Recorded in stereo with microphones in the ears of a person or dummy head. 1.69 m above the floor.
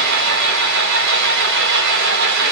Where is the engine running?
70° right (ahead or behind), 3 m.